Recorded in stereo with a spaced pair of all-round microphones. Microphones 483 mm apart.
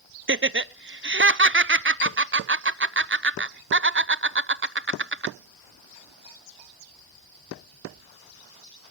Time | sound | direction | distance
0.3 | laughter | 25° right (ahead or behind) | 0.5 m